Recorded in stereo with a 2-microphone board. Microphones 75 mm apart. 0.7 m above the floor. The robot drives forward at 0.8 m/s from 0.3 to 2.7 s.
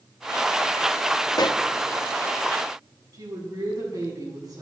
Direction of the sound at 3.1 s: 60° right (ahead or behind).